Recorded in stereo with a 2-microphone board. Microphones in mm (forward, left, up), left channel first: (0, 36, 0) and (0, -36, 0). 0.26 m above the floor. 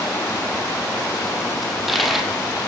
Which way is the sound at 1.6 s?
Centre (ahead or behind).